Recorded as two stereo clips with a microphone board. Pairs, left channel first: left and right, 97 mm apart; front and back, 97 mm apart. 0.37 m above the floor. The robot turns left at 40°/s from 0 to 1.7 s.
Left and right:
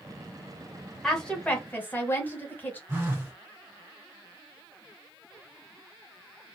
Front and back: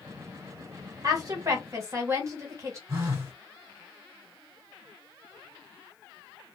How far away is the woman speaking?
About 1.1 m.